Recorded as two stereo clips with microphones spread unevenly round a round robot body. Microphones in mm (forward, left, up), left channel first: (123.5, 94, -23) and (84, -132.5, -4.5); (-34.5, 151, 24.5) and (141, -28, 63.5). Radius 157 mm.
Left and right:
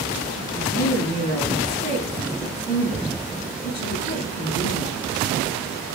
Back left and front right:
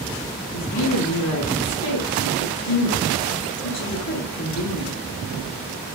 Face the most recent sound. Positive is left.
turn(degrees=140)